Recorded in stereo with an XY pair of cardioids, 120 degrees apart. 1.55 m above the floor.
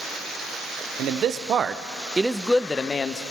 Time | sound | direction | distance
1.0 | a man speaking | 65° right | 0.9 m